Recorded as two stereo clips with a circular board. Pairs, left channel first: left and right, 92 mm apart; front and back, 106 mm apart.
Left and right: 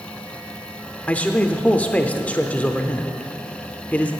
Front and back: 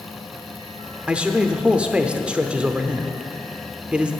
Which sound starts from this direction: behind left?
A man speaking, at 1.1 s.